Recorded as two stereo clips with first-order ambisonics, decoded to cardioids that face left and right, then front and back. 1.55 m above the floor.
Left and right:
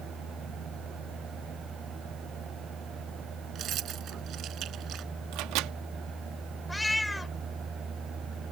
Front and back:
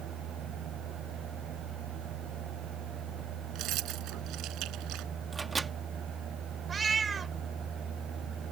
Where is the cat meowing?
165° left.